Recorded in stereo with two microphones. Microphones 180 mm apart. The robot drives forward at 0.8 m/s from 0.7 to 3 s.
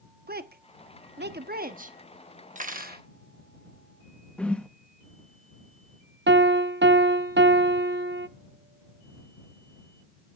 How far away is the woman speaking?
About 0.9 m.